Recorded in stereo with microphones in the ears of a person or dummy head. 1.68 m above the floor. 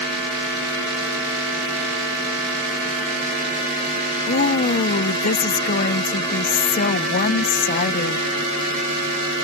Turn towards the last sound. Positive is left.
turn(degrees=45)  # may be behind; listen again after turning